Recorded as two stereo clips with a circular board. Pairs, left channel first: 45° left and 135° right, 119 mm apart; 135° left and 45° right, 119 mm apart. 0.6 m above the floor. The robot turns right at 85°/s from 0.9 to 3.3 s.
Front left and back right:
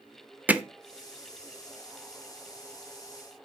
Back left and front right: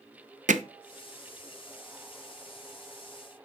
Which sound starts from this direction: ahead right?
Hammering, at 0.5 s.